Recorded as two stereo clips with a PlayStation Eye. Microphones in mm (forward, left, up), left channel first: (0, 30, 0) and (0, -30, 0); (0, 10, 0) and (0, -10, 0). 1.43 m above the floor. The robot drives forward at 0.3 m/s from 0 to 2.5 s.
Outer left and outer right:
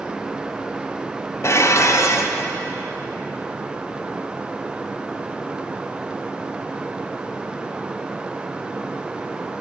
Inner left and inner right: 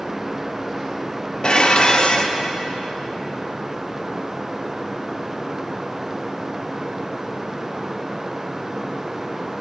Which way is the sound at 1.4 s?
45° left (ahead or behind).